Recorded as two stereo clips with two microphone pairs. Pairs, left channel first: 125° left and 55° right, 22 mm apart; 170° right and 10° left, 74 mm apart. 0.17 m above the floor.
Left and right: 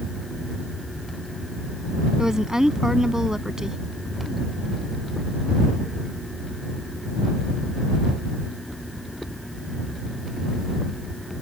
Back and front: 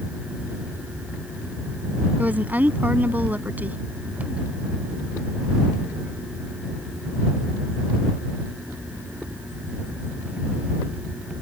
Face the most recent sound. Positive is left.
turn(degrees=-30)